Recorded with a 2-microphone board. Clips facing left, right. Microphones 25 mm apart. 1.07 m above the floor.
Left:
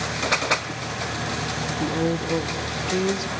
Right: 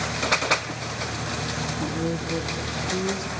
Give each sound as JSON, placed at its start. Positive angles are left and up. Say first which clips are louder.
{"t": 1.7, "sound": "a woman speaking", "louder": "left 6 dB", "side_deg": 35, "distance_m": 0.7}